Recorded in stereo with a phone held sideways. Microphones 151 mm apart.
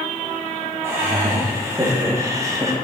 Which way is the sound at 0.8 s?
20° right (ahead or behind).